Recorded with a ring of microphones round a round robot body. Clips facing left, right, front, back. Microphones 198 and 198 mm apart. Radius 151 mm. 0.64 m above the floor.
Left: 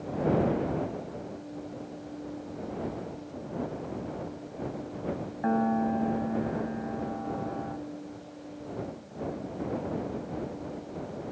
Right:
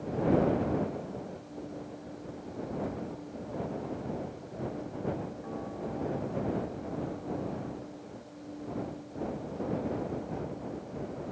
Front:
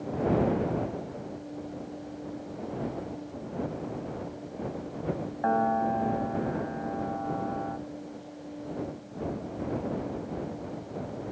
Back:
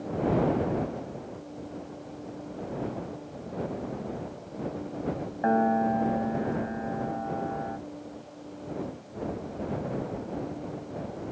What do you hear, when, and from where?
5.4 s a piano: 110° left